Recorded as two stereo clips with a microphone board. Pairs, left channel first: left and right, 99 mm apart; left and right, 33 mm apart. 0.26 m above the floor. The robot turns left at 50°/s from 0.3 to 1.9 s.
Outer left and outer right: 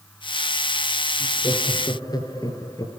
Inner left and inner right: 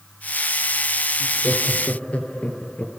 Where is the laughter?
80° left, 5 m; by 3.0 s 45° left, 5 m.